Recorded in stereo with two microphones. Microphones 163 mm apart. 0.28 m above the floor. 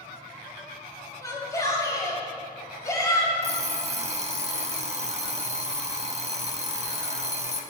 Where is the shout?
20° left (ahead or behind), 1.5 m.